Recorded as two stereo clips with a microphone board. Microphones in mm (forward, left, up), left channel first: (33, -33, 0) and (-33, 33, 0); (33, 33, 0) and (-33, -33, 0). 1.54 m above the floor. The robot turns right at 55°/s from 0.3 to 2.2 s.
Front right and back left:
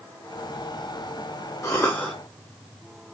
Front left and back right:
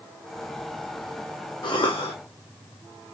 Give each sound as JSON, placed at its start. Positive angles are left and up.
{"t": 1.6, "sound": "a cough", "azimuth_deg": 10, "distance_m": 0.9}